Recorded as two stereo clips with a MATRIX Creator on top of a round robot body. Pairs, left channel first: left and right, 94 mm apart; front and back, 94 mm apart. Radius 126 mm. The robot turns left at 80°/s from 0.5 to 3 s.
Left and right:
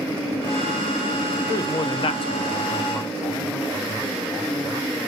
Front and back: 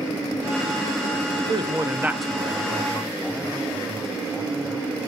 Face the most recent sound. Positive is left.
turn(degrees=30)